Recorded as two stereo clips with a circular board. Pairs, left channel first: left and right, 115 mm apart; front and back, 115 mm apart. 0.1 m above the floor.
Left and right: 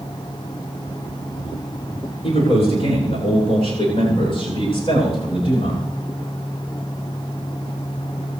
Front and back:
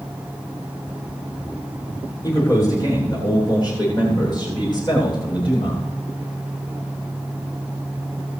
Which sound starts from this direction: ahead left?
A man speaking, at 2.2 s.